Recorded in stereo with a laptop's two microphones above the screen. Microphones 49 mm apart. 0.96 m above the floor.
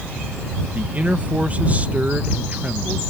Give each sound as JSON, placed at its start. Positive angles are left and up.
{"t": 0.7, "sound": "a man speaking", "side_deg": -30}